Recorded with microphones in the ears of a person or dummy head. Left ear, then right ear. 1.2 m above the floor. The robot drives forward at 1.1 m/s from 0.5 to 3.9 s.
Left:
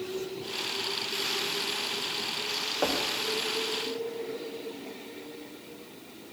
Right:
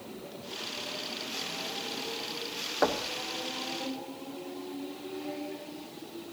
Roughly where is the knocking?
Right.